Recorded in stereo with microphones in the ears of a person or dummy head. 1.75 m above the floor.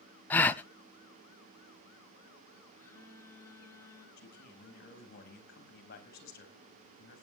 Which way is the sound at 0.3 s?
10° left (ahead or behind).